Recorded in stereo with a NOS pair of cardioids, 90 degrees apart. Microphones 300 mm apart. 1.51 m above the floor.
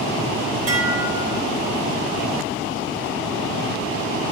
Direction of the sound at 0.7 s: 55° right.